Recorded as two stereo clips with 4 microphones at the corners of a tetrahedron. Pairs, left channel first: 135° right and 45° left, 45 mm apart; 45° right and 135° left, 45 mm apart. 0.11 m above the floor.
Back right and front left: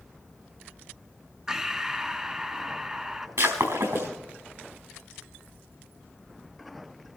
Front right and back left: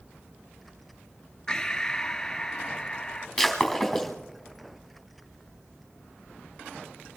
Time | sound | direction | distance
1.5 | breathing | 15° right | 0.6 m
3.4 | breaking glass | 50° left | 5 m